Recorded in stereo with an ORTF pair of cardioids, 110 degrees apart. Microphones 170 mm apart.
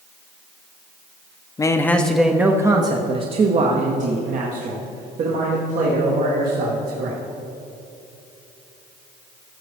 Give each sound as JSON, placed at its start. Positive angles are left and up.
{"t": 1.6, "sound": "a man speaking", "azimuth_deg": 20, "distance_m": 1.0}